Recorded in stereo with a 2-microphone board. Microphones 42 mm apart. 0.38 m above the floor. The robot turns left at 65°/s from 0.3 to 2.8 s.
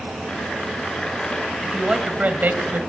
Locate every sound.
1.6 s a man speaking: 5° right, 2.5 m; by 2.8 s 85° right, 2.5 m